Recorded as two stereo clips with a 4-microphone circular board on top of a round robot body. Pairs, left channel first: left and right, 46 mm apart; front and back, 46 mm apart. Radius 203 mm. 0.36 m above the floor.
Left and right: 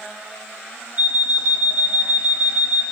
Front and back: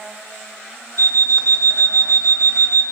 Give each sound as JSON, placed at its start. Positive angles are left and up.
{"t": 1.0, "sound": "an alarm clock", "azimuth_deg": -35, "distance_m": 4.0}